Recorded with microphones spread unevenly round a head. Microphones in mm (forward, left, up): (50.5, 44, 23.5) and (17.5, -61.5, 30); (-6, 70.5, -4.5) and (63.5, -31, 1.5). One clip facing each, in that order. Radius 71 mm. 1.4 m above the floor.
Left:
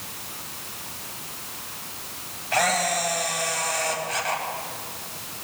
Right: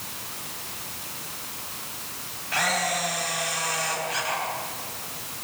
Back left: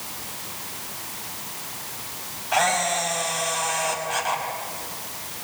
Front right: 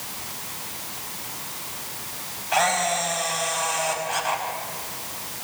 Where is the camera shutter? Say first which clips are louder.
Left 3 dB, even; 30° left, 5 m.